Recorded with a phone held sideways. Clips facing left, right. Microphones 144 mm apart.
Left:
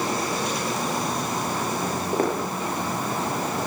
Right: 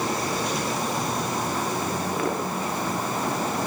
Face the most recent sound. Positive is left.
turn(degrees=40)  # may be behind; listen again after turning